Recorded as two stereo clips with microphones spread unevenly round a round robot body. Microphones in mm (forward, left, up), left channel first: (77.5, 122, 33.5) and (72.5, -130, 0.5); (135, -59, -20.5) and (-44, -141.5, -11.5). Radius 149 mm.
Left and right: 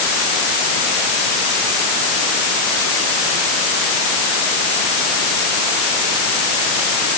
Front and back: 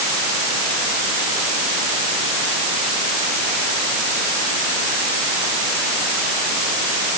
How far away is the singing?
No singing in this recording.